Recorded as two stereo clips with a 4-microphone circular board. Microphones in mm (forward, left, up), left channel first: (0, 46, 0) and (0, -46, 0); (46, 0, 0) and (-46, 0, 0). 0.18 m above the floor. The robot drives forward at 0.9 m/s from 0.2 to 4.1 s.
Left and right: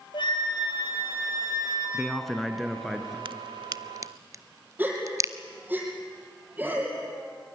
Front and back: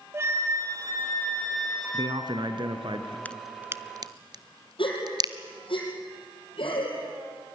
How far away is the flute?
About 2 m.